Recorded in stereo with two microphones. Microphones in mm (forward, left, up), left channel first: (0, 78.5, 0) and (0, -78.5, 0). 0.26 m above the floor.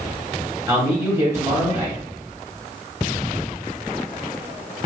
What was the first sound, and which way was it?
A man speaking, 20° right (ahead or behind).